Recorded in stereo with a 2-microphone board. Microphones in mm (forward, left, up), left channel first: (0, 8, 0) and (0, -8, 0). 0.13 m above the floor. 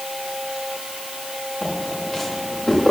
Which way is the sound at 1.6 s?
40° left (ahead or behind).